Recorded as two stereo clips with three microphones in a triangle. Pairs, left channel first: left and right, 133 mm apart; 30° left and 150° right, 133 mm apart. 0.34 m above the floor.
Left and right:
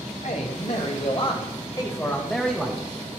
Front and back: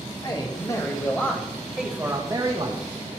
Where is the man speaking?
80° left, 2.0 m; by 2.8 s 170° right, 1.5 m.